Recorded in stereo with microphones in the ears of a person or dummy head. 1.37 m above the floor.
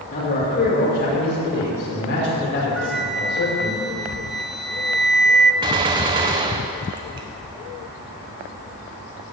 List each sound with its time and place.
0.1 s a man speaking: 45° left (ahead or behind), 5.5 m; by 3.8 s 70° left (ahead or behind), 6 m
2.8 s a flute: centre (ahead or behind), 0.6 m
5.6 s a gunshot: 25° right (ahead or behind), 0.7 m